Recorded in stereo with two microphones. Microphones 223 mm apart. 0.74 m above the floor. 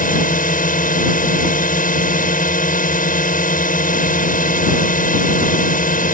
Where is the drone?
40° left (ahead or behind).